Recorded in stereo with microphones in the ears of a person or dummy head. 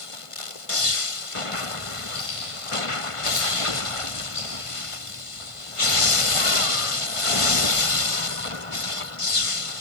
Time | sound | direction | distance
2.1 | keys jangling | 35° left (ahead or behind) | 3 m